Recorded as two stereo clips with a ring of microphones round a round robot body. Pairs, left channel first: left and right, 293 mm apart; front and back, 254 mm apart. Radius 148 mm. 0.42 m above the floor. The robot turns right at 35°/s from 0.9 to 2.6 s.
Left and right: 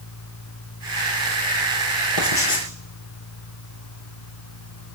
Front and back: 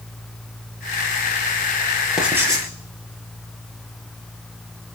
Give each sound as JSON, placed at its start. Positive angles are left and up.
{"t": 2.2, "sound": "writing", "azimuth_deg": 90, "distance_m": 6.5}